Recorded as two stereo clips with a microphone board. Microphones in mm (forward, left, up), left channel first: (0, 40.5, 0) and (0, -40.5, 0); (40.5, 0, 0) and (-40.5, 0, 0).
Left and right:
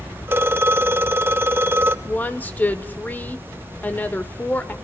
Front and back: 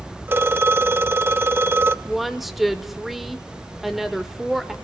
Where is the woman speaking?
100° left, 1.0 m.